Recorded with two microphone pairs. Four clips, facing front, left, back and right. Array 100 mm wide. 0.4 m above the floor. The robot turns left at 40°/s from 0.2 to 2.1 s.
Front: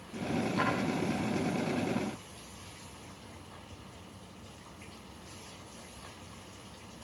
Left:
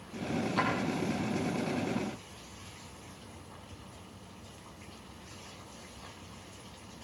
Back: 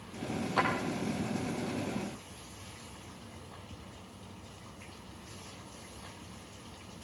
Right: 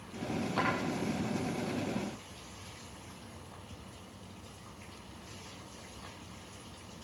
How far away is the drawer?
About 5.5 m.